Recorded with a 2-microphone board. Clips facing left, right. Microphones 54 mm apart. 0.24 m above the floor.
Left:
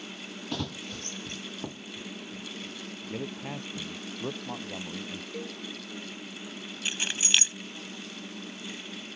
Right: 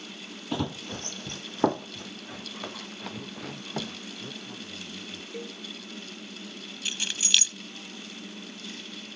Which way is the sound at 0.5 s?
15° right (ahead or behind).